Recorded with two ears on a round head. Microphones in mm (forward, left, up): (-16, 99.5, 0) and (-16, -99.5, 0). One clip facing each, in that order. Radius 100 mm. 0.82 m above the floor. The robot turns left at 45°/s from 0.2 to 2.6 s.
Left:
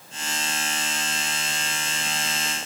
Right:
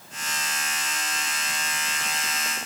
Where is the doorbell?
No doorbell in this recording.